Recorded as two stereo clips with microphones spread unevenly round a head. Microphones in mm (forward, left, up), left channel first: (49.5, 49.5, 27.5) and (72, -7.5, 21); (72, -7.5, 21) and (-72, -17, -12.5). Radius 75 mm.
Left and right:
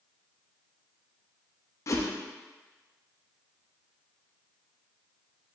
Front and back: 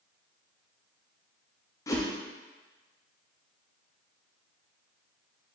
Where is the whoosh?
75° left, 0.7 m.